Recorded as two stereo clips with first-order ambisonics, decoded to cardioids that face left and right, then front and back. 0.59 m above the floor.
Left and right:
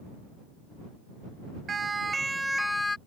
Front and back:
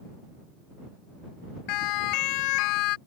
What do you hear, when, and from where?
1.7 s a siren: 20° right; by 3.0 s 15° left